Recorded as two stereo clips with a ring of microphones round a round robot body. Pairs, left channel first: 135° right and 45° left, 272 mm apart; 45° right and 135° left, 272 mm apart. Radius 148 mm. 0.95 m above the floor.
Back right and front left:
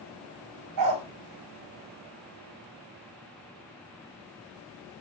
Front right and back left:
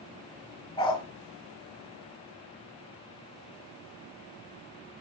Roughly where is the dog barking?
Ahead left.